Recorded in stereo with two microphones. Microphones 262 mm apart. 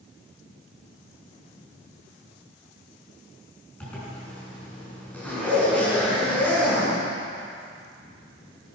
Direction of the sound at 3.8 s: 5° left (ahead or behind).